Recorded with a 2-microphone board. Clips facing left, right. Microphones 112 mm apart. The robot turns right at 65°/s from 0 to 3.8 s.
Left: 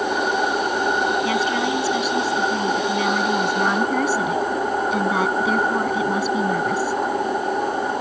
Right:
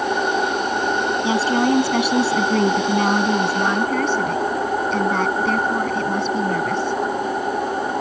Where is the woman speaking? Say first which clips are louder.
Right 3 dB; 160° right; by 7.0 s 5° left.